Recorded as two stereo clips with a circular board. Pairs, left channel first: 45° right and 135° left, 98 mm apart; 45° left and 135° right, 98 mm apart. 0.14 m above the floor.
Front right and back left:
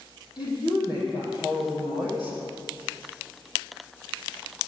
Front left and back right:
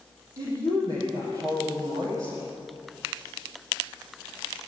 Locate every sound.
0.4 s a woman speaking: 80° right, 6 m